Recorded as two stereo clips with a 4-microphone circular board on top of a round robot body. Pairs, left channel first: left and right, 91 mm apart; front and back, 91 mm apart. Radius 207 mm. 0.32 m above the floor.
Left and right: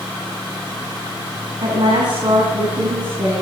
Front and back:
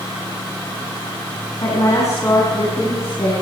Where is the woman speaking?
50° right, 6 m; by 3.3 s 60° right, 6.5 m.